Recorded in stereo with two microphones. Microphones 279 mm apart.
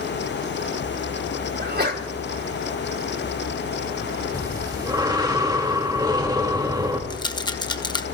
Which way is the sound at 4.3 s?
15° right (ahead or behind).